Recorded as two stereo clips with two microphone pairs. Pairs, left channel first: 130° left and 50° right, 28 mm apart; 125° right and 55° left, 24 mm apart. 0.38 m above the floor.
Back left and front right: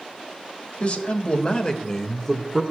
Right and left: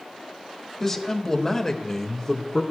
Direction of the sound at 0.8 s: 160° left.